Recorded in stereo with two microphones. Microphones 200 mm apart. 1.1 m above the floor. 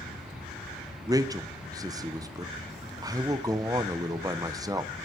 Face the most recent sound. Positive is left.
turn(degrees=-20)  # may be behind; listen again after turning